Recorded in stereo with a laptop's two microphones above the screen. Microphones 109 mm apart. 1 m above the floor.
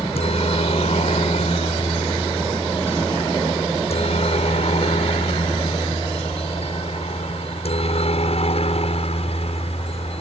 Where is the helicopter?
70° left (ahead or behind).